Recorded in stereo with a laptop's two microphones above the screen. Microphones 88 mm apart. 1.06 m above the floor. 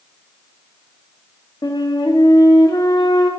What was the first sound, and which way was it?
A flute, 60° left (ahead or behind).